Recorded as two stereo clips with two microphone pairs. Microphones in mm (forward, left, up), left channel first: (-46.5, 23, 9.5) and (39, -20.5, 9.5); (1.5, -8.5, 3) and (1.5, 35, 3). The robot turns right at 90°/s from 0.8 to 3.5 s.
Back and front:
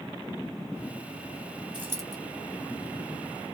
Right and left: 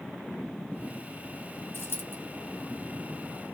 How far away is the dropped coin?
About 1.1 m.